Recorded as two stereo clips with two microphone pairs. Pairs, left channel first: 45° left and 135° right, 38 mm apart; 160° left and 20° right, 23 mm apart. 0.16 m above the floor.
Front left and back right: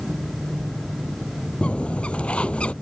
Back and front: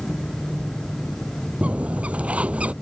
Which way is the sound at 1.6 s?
10° right.